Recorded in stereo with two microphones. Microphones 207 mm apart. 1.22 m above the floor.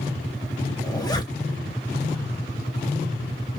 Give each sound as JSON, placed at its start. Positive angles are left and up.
{"t": 0.8, "sound": "a zipper", "side_deg": 20, "distance_m": 1.2}